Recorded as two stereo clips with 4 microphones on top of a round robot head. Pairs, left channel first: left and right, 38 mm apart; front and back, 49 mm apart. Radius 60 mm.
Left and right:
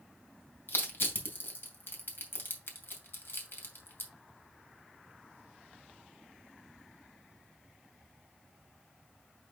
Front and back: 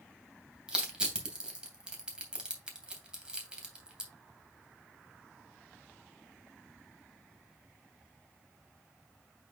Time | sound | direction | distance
0.7 | crushing | 105° left | 2.5 m